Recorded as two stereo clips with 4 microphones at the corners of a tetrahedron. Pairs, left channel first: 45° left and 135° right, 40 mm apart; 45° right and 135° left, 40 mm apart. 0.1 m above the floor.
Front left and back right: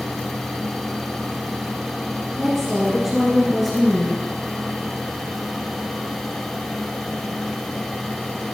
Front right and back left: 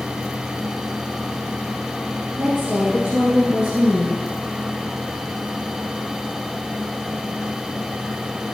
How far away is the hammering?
I don't hear hammering.